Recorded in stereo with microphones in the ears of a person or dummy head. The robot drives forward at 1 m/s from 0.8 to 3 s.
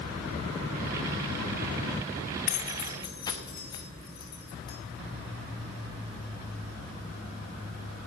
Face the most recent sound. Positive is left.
turn(degrees=25)  # may be behind; listen again after turning